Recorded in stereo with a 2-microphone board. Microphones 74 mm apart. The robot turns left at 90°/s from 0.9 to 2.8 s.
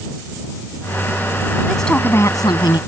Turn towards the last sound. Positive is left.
turn(degrees=85)